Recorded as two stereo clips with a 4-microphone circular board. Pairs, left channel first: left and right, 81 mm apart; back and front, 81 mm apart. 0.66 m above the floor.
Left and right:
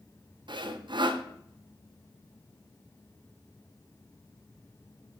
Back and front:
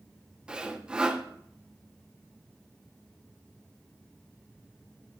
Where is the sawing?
80° right, 0.6 m.